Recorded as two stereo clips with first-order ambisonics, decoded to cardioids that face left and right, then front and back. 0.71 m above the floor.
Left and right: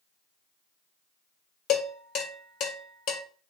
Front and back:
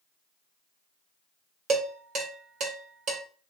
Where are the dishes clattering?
135° left, 1.5 m.